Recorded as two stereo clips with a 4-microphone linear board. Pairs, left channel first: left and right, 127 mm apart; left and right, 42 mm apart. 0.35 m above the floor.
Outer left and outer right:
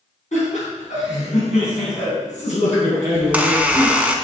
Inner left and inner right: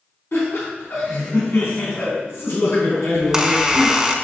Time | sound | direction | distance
0.3 | laughter | 65° left (ahead or behind) | 3.5 m
3.1 | a squeak | 10° right (ahead or behind) | 1.0 m